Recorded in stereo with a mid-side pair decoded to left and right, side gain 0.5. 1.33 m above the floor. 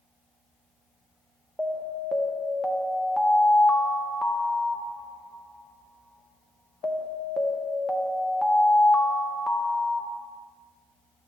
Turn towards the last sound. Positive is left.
turn(degrees=0)